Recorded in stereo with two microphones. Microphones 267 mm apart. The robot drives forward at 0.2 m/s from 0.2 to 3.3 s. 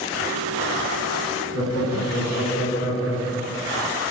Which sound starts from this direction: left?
Laughter, at 1.5 s.